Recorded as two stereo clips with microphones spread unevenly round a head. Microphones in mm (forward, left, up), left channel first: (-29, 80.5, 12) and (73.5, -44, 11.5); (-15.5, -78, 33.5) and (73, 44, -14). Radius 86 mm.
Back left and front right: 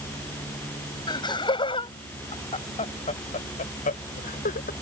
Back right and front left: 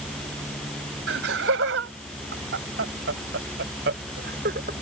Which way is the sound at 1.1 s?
65° left.